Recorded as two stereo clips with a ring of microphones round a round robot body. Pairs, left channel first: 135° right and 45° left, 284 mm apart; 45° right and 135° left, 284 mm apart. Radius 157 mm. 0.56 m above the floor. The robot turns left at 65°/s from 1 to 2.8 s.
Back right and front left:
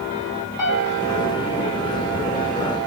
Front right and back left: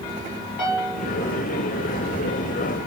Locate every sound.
0.6 s a piano: 55° right, 4.5 m; by 1.1 s 60° right, 4.5 m